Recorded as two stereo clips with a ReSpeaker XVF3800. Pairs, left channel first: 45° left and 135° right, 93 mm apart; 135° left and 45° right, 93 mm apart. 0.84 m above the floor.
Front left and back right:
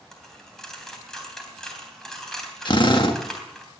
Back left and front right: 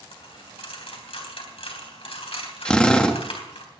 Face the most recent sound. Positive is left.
turn(degrees=55)